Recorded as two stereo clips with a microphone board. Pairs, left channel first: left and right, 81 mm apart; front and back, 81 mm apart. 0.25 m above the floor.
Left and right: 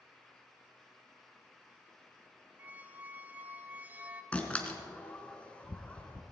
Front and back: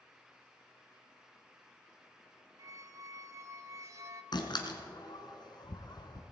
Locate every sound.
2.6 s a squeak: 150° right, 0.7 m
4.3 s a door slam: 15° left, 1.6 m